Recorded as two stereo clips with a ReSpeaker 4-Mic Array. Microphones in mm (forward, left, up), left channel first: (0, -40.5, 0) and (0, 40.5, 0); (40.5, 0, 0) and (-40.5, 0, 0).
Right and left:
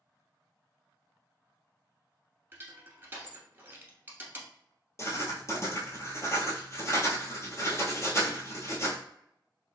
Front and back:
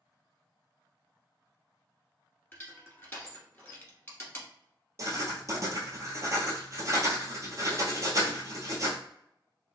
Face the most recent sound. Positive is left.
turn(degrees=-140)